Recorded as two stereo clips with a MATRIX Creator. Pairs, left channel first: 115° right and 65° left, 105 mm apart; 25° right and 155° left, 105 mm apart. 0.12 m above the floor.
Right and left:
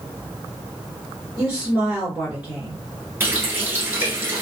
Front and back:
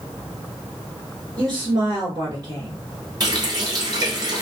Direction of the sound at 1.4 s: 140° left.